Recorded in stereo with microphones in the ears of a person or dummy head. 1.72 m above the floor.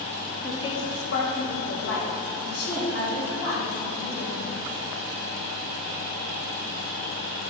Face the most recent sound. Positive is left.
turn(degrees=75)  # may be behind; listen again after turning